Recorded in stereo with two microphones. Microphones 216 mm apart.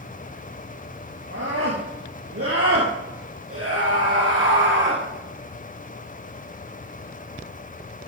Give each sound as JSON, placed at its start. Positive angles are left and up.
{"t": 1.3, "sound": "a scream", "side_deg": -70, "distance_m": 5.5}